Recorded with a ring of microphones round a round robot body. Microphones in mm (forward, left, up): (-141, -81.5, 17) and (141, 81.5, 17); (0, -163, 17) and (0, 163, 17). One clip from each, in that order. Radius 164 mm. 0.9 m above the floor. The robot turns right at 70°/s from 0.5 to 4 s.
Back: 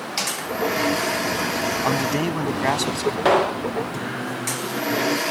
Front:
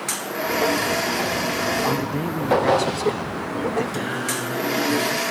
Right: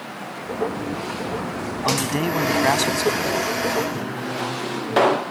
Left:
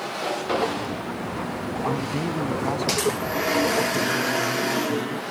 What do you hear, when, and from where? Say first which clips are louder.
1.9 s a man speaking: back 2 dB, right 6 dB; 150° right; by 3.8 s 10° right
3.9 s singing: front 3 dB, left 5 dB; 100° left